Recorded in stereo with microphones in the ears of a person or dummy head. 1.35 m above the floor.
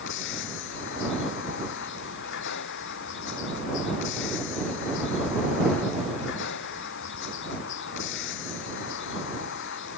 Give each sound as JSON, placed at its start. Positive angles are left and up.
{"t": 0.0, "sound": "a vehicle", "side_deg": 60}